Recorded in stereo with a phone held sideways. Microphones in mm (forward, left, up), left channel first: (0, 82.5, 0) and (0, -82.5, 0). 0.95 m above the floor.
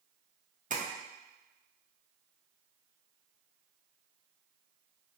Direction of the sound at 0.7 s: 50° right (ahead or behind).